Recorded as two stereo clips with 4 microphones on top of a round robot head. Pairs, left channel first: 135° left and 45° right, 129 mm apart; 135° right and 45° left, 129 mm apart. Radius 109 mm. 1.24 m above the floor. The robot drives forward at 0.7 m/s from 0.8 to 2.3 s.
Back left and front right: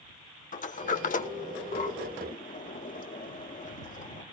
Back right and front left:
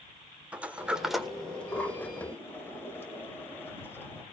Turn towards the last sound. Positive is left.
turn(degrees=155)